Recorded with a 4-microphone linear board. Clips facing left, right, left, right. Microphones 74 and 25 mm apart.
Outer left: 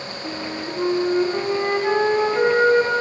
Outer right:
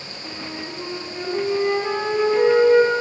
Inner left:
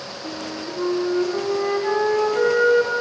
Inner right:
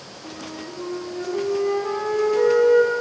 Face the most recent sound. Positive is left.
turn(degrees=40)  # may be behind; listen again after turning